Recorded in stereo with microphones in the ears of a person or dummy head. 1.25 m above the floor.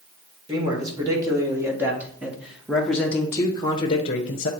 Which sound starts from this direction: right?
A man speaking, at 0.5 s.